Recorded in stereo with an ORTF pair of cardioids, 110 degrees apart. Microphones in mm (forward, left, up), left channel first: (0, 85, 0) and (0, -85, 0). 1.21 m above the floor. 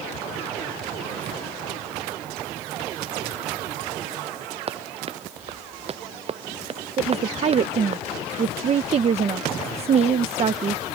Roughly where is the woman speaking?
Ahead right.